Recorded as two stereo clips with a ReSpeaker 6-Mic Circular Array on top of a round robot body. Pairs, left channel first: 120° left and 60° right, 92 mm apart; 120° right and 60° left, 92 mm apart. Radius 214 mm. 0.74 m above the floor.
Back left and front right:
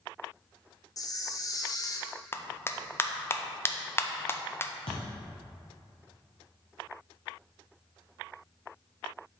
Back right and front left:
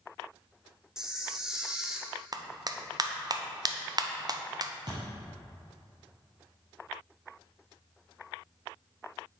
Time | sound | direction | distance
1.0 | a camera shutter | 140° left | 1.1 m
2.3 | a clap | 65° left | 0.7 m
4.9 | a thud | 100° left | 0.9 m